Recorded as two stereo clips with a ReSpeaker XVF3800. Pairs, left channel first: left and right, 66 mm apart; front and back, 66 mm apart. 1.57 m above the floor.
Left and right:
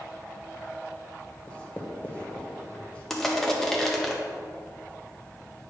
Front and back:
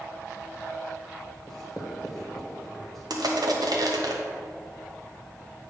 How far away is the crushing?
About 1.0 m.